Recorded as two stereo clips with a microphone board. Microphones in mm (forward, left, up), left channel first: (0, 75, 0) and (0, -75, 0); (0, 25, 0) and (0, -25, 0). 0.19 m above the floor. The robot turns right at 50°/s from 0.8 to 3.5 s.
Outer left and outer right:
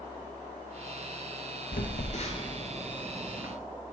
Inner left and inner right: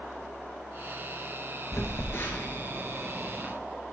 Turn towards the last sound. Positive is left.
turn(degrees=-15)  # may be behind; listen again after turning